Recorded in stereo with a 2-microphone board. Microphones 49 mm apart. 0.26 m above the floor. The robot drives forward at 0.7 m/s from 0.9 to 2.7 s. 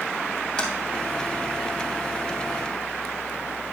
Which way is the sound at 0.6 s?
15° left (ahead or behind).